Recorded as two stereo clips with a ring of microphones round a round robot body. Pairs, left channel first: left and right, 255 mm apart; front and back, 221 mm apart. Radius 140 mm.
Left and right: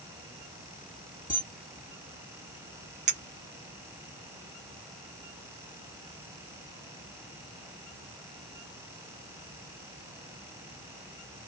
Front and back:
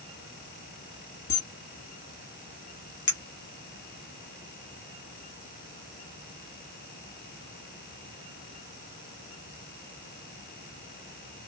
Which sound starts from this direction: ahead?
A camera shutter, at 1.3 s.